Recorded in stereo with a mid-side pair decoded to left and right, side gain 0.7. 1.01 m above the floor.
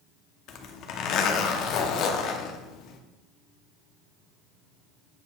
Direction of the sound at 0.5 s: 55° left.